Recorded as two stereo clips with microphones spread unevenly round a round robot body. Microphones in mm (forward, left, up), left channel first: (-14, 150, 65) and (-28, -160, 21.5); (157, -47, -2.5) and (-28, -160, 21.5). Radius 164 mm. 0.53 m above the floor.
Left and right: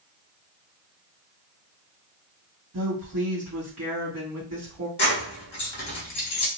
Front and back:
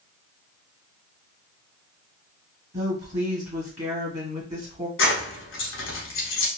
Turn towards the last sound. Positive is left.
turn(degrees=10)